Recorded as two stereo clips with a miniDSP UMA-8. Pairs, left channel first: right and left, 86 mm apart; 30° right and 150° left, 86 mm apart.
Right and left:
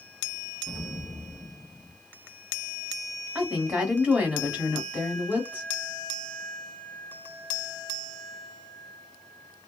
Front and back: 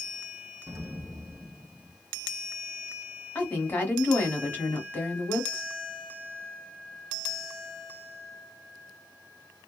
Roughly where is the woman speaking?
Ahead left.